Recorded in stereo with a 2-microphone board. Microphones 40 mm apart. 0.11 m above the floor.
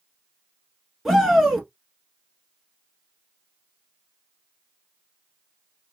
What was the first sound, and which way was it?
A shout, 5° right (ahead or behind).